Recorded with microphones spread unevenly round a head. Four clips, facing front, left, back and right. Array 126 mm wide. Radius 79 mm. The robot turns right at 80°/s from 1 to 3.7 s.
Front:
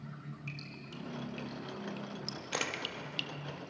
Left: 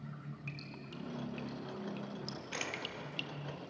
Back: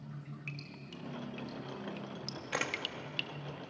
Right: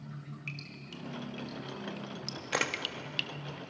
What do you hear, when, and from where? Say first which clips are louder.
0.5 s dripping: right 1 dB, front 1 dB; 110° left, 0.8 m; by 3.3 s 65° right, 0.8 m
2.5 s a camera shutter: right 10 dB, back 1 dB; 85° right, 1.5 m; by 2.8 s 65° right, 1.5 m